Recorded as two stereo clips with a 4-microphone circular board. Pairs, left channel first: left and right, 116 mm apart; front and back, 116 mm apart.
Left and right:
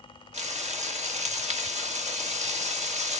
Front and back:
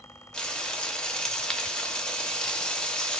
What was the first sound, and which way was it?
Frying, 85° right.